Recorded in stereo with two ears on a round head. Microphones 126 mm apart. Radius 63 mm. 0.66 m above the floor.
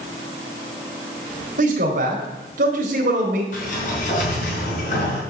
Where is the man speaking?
60° right (ahead or behind), 2.5 m.